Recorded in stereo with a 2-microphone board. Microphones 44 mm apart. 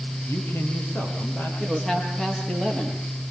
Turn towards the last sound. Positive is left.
turn(degrees=15)  # may be behind; listen again after turning